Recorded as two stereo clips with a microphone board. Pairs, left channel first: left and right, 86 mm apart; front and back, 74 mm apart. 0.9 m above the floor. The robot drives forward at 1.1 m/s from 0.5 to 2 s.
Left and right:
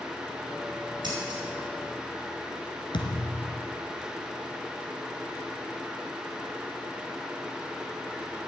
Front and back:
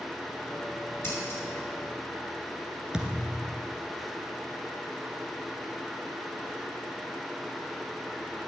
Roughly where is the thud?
Left.